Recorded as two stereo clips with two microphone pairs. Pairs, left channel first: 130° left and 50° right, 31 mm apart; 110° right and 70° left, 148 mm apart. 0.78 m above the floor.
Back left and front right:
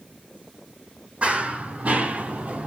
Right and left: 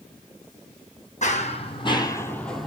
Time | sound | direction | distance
1.2 | running footsteps | 95° right | 1.5 m